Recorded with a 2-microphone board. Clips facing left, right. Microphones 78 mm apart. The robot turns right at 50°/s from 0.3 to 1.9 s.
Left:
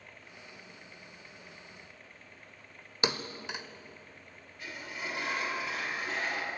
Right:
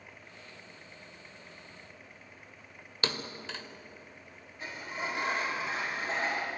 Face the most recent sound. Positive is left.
turn(degrees=-30)  # may be behind; listen again after turning